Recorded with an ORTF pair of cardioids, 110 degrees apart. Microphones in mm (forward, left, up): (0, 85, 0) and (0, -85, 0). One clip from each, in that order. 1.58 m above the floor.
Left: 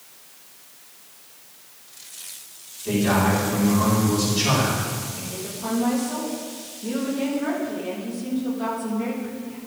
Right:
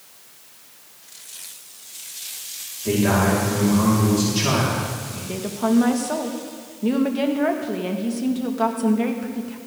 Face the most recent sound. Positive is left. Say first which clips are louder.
# right 8 dB
turn(degrees=-65)